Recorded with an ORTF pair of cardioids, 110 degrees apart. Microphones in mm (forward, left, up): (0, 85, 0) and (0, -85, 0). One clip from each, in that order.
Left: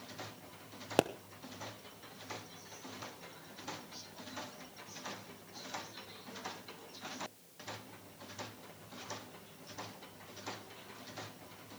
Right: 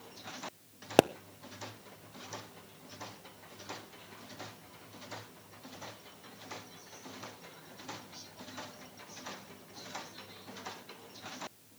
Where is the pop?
25° right, 0.6 m.